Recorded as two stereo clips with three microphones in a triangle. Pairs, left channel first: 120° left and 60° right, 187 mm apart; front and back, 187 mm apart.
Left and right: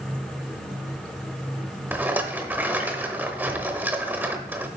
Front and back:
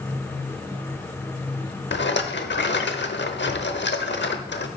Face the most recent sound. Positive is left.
turn(degrees=20)